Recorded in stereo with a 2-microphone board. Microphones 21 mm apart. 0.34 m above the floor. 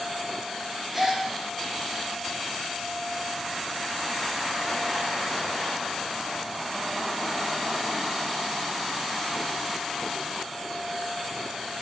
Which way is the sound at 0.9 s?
Centre (ahead or behind).